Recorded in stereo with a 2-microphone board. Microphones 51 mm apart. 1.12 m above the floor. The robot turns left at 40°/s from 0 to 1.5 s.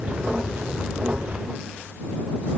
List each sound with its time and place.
Only background noise.